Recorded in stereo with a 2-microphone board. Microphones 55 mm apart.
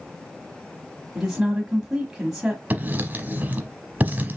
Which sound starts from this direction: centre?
A woman speaking, at 1.1 s.